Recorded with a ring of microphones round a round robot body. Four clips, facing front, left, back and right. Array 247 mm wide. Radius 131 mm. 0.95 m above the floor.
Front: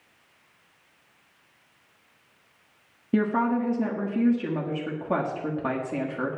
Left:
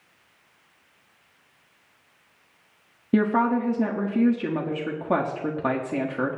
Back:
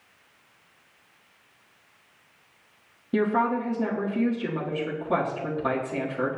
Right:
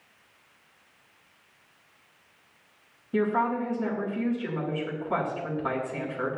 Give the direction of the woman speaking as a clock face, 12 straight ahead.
9 o'clock.